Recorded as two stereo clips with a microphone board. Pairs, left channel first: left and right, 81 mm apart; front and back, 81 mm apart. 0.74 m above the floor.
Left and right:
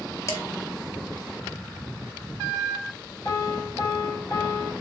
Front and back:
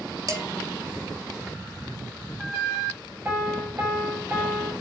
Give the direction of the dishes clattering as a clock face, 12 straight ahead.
7 o'clock.